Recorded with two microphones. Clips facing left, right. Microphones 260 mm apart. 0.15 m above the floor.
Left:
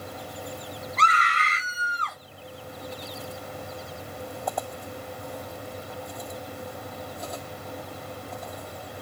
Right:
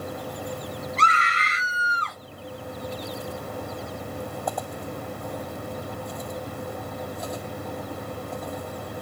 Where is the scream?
30° right (ahead or behind), 1.9 m; by 2.2 s 5° left (ahead or behind), 1.7 m.